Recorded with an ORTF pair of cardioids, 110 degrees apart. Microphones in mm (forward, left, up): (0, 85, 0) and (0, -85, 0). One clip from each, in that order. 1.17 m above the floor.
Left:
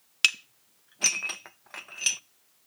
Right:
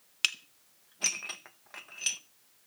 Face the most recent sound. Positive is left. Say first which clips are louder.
# left 6 dB
turn(degrees=25)